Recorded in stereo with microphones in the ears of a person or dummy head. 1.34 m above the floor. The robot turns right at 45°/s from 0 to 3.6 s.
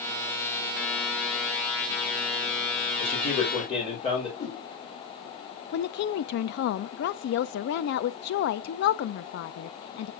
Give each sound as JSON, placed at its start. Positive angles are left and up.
{"t": 3.0, "sound": "a man speaking", "side_deg": 70, "distance_m": 4.0}
{"t": 4.4, "sound": "a whoosh", "side_deg": 70, "distance_m": 4.0}
{"t": 5.7, "sound": "a woman speaking", "side_deg": 65, "distance_m": 0.5}